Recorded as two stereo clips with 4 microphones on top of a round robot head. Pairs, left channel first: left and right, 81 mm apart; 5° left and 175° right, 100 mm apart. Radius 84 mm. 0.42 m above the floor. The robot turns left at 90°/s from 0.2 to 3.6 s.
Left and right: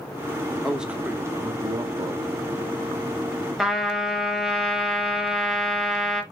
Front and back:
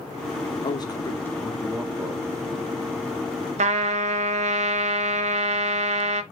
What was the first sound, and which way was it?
A man speaking, straight ahead.